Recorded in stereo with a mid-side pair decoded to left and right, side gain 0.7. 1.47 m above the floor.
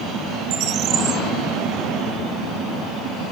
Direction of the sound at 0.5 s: 50° right.